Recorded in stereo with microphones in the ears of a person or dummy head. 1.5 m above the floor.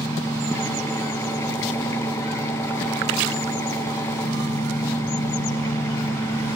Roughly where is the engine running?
Centre.